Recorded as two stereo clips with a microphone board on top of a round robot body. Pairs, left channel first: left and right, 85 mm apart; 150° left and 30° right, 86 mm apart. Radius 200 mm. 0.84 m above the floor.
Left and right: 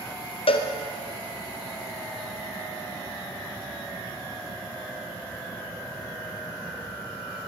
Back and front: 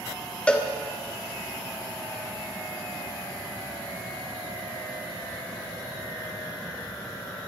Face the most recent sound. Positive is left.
turn(degrees=70)